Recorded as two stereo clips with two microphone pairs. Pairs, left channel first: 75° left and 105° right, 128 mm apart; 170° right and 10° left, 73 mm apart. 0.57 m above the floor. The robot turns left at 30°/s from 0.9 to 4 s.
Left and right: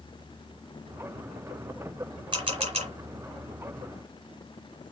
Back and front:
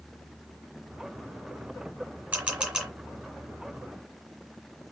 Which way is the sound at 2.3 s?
55° right.